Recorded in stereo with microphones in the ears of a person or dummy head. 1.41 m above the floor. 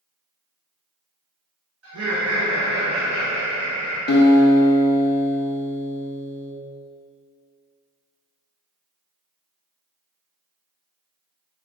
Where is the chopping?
I don't hear chopping.